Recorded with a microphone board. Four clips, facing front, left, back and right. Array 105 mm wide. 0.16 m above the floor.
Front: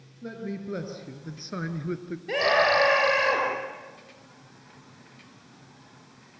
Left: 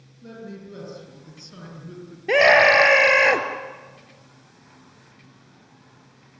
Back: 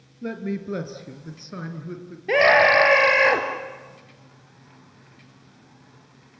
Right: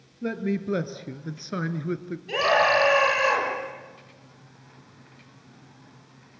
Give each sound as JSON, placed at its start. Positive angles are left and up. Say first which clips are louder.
{"t": 0.2, "sound": "a man speaking", "louder": "right 11 dB, back 6 dB", "azimuth_deg": -120, "distance_m": 2.0}
{"t": 2.3, "sound": "a scream", "louder": "left 6 dB, back 6 dB", "azimuth_deg": 120, "distance_m": 3.5}